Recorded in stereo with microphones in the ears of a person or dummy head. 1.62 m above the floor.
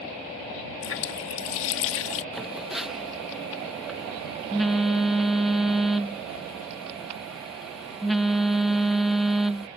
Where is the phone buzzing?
5° right (ahead or behind).